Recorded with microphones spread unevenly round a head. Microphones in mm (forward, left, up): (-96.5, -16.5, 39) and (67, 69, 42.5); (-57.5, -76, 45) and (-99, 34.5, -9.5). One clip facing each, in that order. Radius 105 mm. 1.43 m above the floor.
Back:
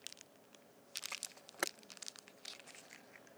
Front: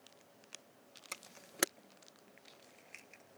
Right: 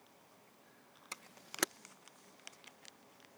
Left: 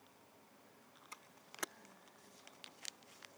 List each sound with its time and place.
1.1 s a camera shutter: 30° right